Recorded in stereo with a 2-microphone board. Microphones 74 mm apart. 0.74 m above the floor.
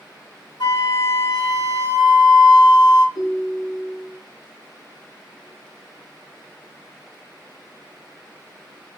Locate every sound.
0.6 s a flute: 80° left, 2.5 m
3.1 s a ringtone: 75° left (ahead or behind), 3 m